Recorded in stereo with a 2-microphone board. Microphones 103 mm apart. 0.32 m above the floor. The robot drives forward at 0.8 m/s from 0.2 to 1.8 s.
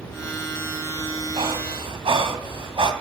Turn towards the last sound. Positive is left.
turn(degrees=-55)  # may be behind; listen again after turning